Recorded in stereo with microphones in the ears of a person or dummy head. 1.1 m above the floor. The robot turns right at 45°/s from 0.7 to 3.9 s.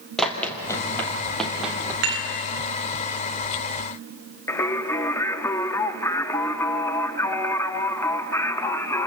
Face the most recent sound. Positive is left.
turn(degrees=5)  # may be behind; listen again after turning